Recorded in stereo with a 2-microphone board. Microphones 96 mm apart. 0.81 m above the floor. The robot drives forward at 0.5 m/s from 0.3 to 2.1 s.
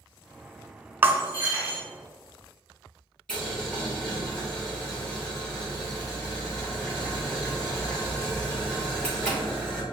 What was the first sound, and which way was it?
Breaking glass, 25° right (ahead or behind).